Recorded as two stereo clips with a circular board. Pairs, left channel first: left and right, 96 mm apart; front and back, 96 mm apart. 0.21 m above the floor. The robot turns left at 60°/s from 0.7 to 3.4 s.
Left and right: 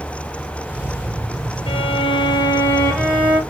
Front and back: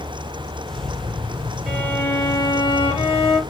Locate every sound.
1.7 s a violin: 80° left, 3 m; by 3.4 s 25° right, 3 m